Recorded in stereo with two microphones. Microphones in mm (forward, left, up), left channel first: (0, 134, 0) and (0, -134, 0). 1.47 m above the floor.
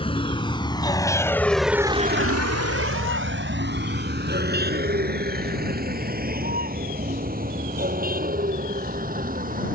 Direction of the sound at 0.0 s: 20° left (ahead or behind).